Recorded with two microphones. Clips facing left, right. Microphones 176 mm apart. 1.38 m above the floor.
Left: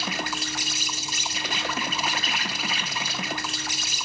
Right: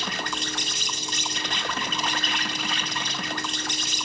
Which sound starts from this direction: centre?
An insect, at 0.0 s.